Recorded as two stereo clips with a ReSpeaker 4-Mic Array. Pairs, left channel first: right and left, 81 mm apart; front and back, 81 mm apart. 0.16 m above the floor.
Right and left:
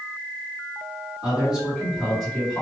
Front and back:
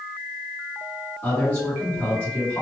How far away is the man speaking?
About 1.9 m.